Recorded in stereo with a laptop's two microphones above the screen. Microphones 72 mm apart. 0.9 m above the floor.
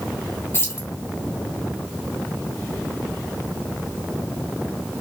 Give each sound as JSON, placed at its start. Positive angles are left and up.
{"t": 0.5, "sound": "keys jangling", "side_deg": 35, "distance_m": 1.5}